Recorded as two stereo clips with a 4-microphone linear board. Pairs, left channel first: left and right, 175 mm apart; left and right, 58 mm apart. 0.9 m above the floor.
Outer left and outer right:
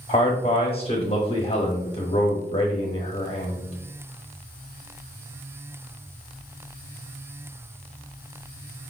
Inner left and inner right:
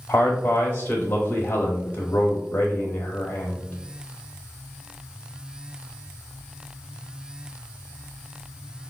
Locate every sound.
0.1 s a man speaking: 35° left (ahead or behind), 1.0 m